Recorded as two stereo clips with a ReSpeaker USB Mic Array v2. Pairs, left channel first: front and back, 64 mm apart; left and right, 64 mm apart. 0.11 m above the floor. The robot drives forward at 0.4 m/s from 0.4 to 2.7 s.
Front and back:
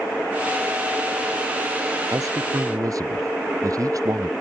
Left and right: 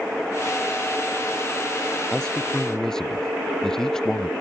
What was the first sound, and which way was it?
A man speaking, 170° left.